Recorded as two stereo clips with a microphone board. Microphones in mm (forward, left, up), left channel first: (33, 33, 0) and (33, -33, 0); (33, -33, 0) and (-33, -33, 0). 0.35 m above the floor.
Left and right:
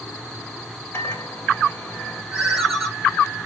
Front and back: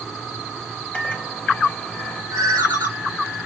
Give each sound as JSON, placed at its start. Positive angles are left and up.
{"t": 0.9, "sound": "a microwave", "azimuth_deg": 60, "distance_m": 1.3}
{"t": 2.3, "sound": "a ringtone", "azimuth_deg": -175, "distance_m": 3.0}